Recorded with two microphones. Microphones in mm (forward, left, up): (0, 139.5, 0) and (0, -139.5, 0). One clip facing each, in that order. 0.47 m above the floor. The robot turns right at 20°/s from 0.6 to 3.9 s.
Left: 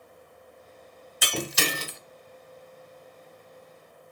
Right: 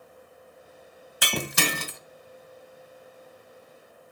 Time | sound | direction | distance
1.2 | breaking glass | 70° right (ahead or behind) | 1.0 m